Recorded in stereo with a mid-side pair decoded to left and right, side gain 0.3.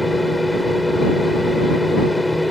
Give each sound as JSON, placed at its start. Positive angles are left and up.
{"t": 0.0, "sound": "a fan", "azimuth_deg": 15}